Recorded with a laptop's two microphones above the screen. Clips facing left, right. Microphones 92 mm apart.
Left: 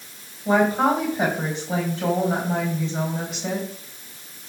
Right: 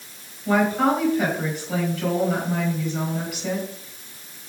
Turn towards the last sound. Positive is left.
turn(degrees=25)  # may be behind; listen again after turning